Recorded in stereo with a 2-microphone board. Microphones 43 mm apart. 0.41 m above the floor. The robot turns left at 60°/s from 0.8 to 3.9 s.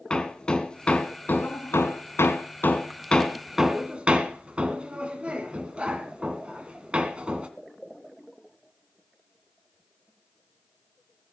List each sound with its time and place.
0.1 s hammering: 20° left (ahead or behind), 1.9 m; by 7.5 s 25° right (ahead or behind), 1.9 m